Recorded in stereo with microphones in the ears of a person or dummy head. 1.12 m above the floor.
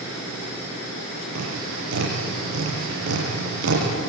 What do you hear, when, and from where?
1.4 s tapping: 75° right (ahead or behind), 7.5 m